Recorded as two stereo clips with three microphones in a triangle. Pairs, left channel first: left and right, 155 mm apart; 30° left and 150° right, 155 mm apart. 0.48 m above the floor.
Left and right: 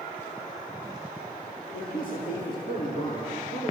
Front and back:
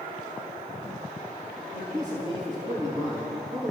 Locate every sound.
1.7 s a man speaking: 85° left, 6 m